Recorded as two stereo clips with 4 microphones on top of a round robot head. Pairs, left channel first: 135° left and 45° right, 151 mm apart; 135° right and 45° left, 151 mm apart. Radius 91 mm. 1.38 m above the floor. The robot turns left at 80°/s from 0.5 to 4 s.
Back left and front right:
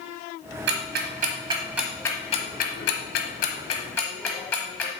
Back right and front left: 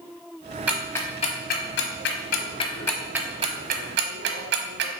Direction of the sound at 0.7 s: 35° right.